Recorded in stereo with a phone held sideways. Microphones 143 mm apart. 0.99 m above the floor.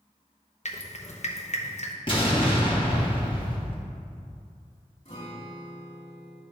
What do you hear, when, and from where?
0.7 s dripping: 55° left (ahead or behind), 0.7 m
2.1 s an explosion: 40° left (ahead or behind), 1.5 m
5.0 s a guitar: 55° left (ahead or behind), 1.8 m